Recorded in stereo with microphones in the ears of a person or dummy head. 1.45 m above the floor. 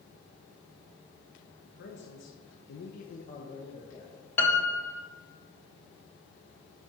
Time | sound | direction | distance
1.8 | a man speaking | 50° left (ahead or behind) | 1.0 m
4.4 | a piano | 10° left (ahead or behind) | 0.9 m